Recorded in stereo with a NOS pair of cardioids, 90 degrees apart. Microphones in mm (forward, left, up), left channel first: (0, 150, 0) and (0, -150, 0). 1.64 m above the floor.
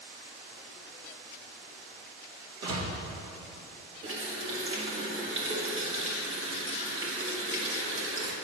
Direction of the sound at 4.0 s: 50° right.